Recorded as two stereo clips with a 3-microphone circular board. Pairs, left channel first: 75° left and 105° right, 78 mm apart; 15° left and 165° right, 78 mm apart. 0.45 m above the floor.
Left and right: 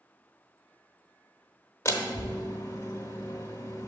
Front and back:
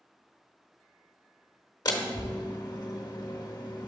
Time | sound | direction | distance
1.9 | a door slam | 30° left | 0.9 m